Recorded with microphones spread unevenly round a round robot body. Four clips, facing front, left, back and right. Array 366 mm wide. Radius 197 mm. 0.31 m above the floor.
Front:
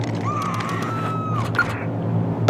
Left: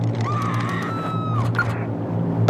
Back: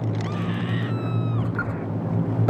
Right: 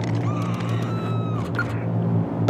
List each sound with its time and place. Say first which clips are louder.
0.2 s a scream: left 2 dB, front 4 dB; 45° left